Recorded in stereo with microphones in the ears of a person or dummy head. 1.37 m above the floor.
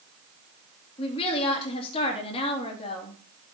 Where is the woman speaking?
35° left (ahead or behind), 3 m.